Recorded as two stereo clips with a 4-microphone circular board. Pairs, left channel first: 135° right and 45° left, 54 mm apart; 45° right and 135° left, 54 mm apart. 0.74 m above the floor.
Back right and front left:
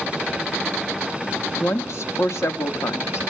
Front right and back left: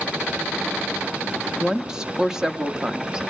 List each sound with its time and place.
1.6 s a woman speaking: 150° right, 1.1 m